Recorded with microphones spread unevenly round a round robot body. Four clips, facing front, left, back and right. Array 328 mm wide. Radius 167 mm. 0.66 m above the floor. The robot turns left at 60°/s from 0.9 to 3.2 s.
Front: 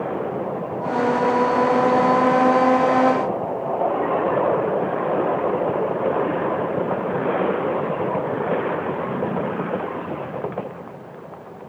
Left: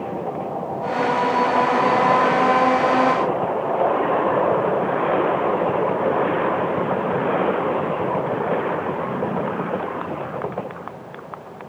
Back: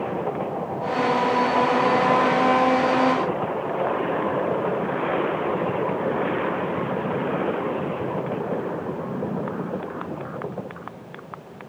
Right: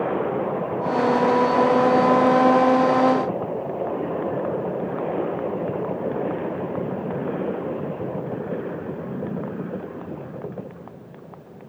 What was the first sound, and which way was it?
Only background noise.